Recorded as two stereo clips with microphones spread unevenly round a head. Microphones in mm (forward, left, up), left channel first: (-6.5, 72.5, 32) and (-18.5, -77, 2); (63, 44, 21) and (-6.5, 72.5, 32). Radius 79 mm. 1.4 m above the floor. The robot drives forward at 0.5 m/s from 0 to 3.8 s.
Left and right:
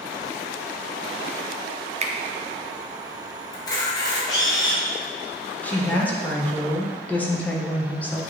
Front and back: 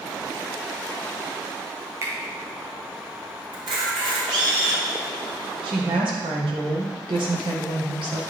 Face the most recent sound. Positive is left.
turn(degrees=165)